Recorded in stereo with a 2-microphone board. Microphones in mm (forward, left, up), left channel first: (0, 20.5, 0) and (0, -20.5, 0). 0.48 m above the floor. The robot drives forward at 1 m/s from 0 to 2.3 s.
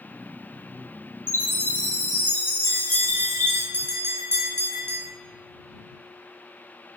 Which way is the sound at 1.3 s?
65° left (ahead or behind).